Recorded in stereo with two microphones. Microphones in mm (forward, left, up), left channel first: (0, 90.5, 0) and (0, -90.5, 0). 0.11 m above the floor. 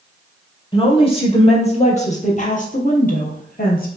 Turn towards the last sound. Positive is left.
turn(degrees=60)  # may be behind; listen again after turning